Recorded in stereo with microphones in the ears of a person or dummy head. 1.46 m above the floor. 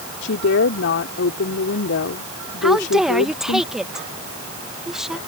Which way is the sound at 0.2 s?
60° left (ahead or behind).